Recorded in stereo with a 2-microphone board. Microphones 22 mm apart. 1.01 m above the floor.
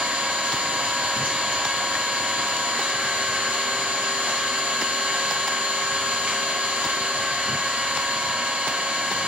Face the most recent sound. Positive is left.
turn(degrees=-75)  # may be behind; listen again after turning